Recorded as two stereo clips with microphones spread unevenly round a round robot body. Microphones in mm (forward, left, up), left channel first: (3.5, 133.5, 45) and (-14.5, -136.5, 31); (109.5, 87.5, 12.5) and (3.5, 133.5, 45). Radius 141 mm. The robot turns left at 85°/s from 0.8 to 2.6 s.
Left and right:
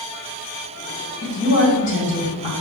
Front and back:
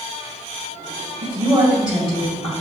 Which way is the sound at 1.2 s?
125° left.